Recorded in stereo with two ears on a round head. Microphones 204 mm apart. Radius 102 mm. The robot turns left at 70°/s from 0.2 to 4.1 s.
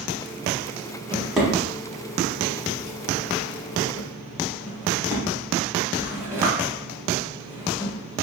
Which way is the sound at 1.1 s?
20° right (ahead or behind).